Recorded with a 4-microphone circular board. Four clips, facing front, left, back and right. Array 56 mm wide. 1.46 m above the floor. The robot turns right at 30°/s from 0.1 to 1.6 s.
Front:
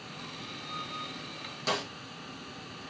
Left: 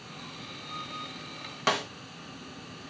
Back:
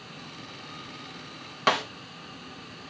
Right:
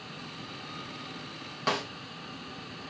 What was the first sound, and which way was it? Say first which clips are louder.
A snare drum: left 2 dB, back 8 dB; 160° left.